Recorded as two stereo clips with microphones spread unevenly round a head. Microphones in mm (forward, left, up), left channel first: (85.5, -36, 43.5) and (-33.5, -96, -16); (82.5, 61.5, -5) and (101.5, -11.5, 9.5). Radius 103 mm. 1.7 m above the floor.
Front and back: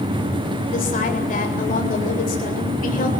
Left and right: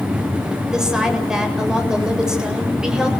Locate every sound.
0.7 s a woman speaking: 5° left, 7.5 m